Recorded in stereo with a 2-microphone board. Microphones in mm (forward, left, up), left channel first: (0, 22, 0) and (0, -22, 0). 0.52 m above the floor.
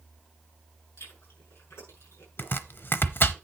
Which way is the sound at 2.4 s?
50° left (ahead or behind).